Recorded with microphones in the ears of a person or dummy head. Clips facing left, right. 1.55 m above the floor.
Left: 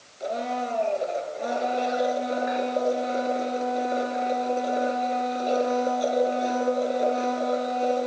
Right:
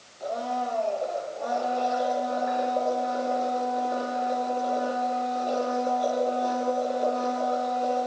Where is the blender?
25° left (ahead or behind), 4.5 m.